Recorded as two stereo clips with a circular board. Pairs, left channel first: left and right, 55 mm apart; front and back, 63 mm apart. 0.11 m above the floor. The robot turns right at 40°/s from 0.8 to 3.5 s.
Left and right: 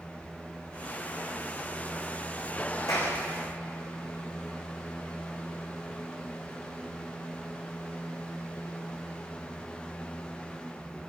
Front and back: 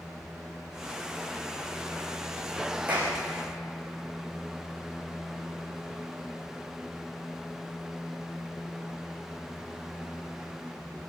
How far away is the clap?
About 7 m.